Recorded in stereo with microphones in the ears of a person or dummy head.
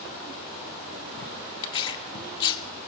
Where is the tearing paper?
20° left (ahead or behind), 0.7 m.